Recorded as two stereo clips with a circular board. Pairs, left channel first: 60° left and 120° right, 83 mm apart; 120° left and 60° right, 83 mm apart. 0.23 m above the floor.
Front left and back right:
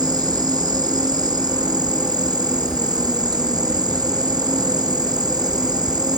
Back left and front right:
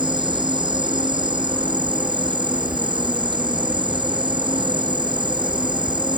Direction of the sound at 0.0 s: 85° right.